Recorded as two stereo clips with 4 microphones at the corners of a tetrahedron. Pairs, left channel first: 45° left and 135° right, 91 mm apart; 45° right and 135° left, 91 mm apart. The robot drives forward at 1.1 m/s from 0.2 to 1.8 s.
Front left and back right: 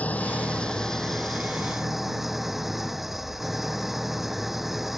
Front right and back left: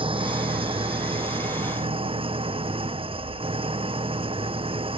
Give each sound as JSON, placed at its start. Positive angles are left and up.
{"t": 0.0, "sound": "an engine running", "azimuth_deg": 120}